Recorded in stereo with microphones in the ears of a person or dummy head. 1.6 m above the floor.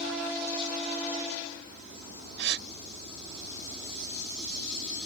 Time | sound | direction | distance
2.4 | a gasp | 60° right (ahead or behind) | ?